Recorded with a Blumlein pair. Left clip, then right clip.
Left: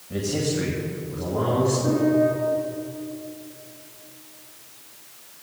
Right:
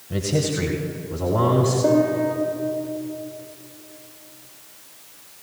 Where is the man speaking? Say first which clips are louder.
Right 2 dB; 15° right, 1.4 m; by 1.7 s 35° right, 3 m.